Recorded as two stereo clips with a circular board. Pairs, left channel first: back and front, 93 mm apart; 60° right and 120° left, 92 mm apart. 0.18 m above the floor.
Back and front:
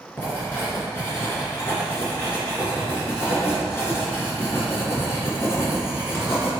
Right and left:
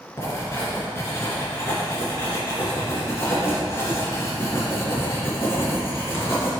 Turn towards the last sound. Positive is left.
turn(degrees=-115)